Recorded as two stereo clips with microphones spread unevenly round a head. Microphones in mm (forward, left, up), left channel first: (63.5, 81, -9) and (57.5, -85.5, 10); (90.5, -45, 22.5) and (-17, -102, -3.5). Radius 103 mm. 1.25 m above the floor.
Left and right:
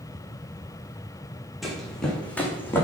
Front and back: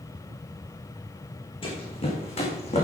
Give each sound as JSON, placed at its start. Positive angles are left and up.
{"t": 1.6, "sound": "running footsteps", "azimuth_deg": -5, "distance_m": 3.5}